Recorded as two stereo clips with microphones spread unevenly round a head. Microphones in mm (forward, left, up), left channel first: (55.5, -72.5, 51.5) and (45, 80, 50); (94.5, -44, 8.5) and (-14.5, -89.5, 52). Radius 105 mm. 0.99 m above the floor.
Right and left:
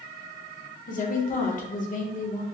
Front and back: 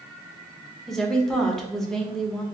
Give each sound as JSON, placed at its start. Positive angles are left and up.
{"t": 0.9, "sound": "a woman speaking", "azimuth_deg": -55, "distance_m": 0.9}